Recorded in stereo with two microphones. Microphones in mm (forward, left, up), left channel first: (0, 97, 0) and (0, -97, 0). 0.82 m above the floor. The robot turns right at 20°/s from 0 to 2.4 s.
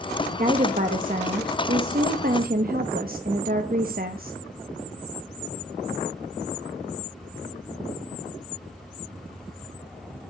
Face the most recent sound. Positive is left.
turn(degrees=-85)